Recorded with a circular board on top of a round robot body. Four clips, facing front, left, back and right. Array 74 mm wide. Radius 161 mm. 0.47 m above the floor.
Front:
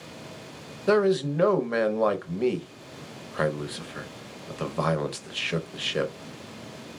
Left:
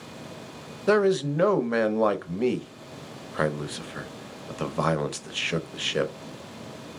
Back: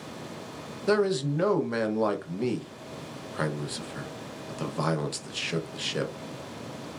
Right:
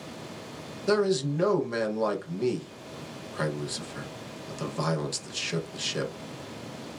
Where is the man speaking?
70° left, 0.9 m.